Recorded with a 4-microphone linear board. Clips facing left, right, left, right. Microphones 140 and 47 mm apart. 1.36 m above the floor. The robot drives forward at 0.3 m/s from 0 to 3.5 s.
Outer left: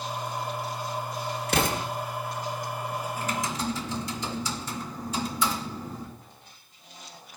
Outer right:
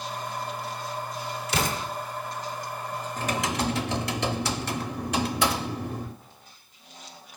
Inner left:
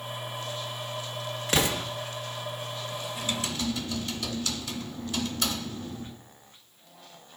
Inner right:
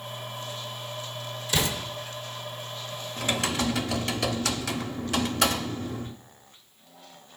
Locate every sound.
1.5 s an explosion: 55° left (ahead or behind), 1.4 m
3.2 s typing on a keyboard: 70° right (ahead or behind), 0.6 m